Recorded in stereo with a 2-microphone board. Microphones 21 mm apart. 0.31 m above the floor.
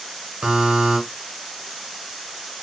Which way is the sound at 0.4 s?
50° right (ahead or behind).